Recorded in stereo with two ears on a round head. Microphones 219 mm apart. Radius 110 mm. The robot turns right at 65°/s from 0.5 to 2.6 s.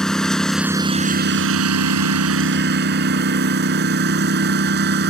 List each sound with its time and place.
0.0 s a lawn mower: 175° left; by 5.1 s 45° right